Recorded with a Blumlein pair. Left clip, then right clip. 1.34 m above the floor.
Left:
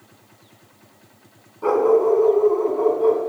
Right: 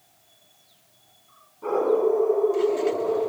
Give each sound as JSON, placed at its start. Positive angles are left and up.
{"t": 1.6, "sound": "a dog barking", "azimuth_deg": 65, "distance_m": 5.0}